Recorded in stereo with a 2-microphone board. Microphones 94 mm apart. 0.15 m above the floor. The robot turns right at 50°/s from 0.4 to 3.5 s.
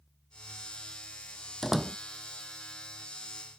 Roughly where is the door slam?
Centre.